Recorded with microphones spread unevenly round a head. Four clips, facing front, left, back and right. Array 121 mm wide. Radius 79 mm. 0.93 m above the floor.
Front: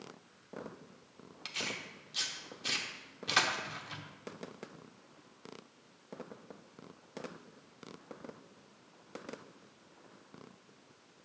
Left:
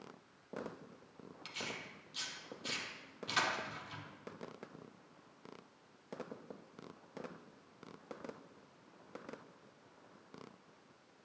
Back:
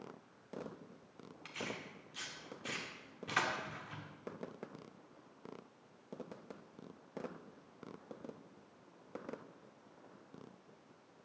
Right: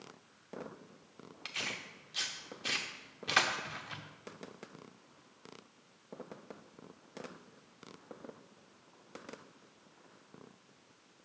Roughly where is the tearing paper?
Right.